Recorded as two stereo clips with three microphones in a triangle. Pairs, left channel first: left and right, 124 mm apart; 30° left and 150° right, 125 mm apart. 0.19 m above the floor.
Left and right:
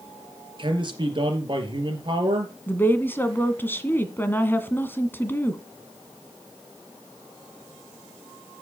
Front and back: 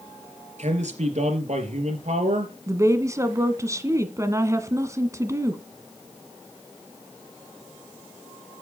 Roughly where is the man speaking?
Behind right.